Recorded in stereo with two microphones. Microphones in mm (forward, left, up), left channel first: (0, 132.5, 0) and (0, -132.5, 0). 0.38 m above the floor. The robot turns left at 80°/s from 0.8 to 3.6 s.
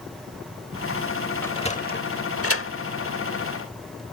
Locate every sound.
1.4 s a sliding door: 10° left (ahead or behind); by 2.7 s 50° left (ahead or behind)